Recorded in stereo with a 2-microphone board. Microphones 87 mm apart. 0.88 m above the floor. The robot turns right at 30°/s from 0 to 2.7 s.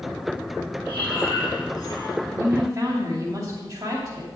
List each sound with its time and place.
0.8 s breathing: 100° left, 3 m; by 2.2 s 145° left, 3 m
2.3 s a woman speaking: 25° right (ahead or behind), 2.5 m; by 4.3 s 40° right (ahead or behind), 2.5 m